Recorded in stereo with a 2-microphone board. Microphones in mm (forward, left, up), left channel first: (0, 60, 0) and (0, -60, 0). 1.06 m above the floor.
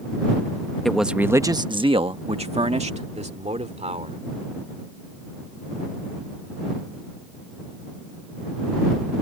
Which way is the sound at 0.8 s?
5° left (ahead or behind).